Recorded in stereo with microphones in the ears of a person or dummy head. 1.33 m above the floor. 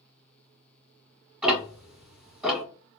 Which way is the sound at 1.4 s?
10° right (ahead or behind).